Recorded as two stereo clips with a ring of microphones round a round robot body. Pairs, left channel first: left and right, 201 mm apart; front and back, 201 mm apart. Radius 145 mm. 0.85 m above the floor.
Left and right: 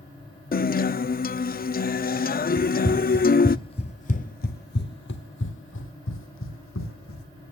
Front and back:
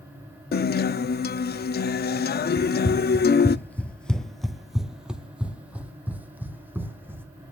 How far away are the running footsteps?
About 0.8 m.